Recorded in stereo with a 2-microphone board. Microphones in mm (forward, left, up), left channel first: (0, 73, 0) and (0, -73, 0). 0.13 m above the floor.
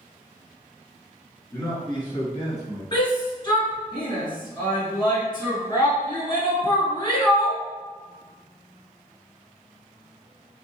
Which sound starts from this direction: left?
A shout, at 2.9 s.